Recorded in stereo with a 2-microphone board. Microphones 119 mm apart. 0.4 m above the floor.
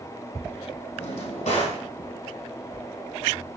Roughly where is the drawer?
Left.